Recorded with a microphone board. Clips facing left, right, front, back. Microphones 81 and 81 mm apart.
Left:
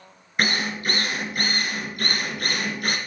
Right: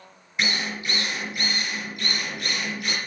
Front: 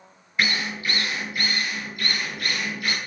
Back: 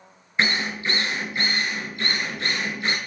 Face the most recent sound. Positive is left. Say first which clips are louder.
# left 3 dB, back 2 dB
turn(degrees=120)